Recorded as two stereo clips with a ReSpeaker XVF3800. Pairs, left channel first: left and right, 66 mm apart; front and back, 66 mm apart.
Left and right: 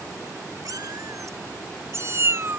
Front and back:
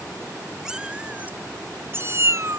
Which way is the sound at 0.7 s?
100° right.